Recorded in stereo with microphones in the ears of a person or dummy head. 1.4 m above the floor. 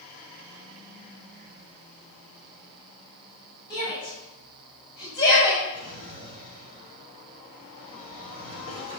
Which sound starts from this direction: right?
A drawer, at 5.7 s.